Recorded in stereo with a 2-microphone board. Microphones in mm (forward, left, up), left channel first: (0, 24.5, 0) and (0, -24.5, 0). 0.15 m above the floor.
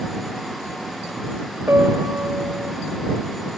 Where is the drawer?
No drawer in this recording.